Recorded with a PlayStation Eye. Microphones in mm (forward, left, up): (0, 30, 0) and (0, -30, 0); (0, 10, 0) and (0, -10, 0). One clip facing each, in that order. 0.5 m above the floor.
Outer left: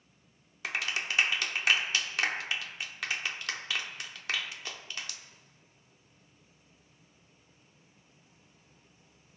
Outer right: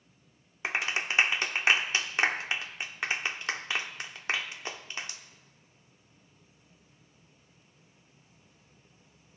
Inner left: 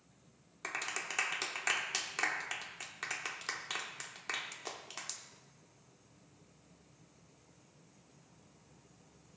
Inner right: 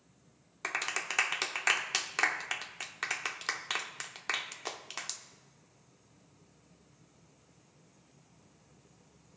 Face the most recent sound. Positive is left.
turn(degrees=-25)  # may be behind; listen again after turning